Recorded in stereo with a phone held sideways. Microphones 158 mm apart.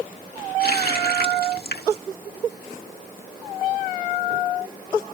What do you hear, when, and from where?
0.6 s a running tap: 80° left